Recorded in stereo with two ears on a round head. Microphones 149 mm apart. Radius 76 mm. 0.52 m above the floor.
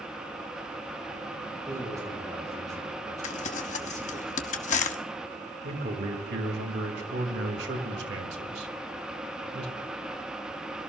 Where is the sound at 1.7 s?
20° right (ahead or behind), 7 m.